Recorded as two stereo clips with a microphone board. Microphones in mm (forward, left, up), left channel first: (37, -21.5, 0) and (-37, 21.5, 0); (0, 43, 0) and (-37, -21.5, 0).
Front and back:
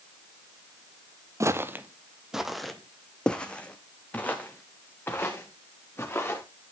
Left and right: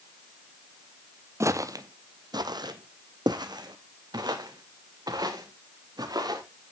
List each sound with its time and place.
1.4 s footsteps: 160° right, 0.8 m; by 6.4 s 95° right, 3.5 m